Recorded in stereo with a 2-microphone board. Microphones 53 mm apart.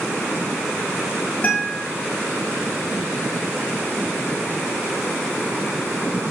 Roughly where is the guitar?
Left.